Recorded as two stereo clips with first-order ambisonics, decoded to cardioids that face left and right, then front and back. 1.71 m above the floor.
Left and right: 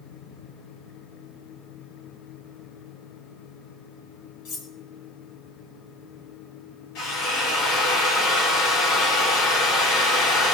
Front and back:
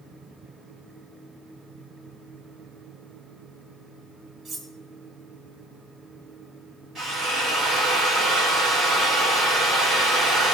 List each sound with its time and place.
4.5 s cutlery clinking: 105° left, 1.4 m
7.0 s a drill: 105° left, 3.5 m